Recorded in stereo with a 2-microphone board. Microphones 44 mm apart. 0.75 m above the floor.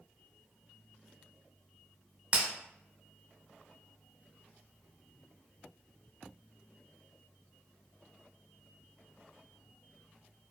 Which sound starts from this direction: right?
Breaking glass, at 2.3 s.